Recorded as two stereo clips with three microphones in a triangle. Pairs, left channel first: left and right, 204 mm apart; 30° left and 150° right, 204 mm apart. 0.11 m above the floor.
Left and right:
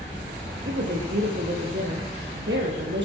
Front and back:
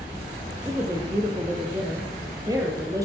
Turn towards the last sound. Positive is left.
turn(degrees=-80)